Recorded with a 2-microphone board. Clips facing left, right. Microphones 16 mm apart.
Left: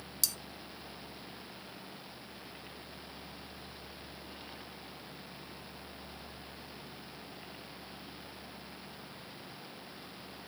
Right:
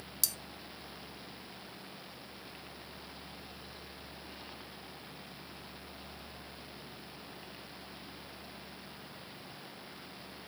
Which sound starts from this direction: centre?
Cutlery clinking, at 0.2 s.